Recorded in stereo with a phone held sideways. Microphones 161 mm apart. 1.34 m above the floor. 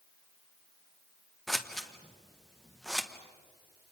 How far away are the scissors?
About 1.3 m.